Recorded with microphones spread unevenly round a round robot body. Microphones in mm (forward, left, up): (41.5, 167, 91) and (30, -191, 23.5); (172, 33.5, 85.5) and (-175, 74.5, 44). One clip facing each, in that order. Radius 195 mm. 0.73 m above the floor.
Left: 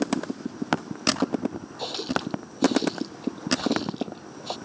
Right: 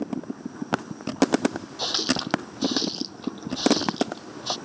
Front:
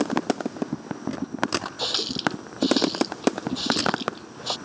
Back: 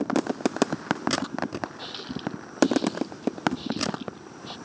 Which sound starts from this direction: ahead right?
A running tap, at 1.8 s.